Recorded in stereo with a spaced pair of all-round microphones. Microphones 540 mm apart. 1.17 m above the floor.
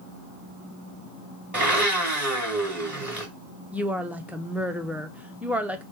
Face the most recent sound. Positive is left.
turn(degrees=-5)  # may be behind; listen again after turning